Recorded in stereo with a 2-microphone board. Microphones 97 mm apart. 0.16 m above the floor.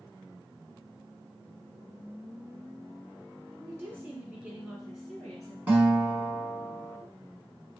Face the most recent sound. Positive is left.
turn(degrees=-15)  # may be behind; listen again after turning